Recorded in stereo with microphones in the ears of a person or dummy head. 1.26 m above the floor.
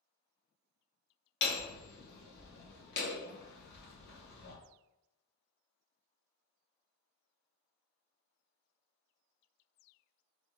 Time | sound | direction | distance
1.4 | hammering | 60° left (ahead or behind) | 0.8 m